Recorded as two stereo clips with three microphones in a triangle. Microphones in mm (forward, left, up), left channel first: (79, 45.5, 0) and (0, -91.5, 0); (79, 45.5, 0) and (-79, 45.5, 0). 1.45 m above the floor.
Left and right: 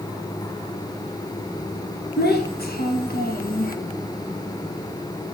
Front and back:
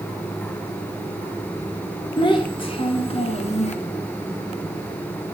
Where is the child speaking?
60° left, 1.7 m; by 3.8 s 40° left, 0.9 m.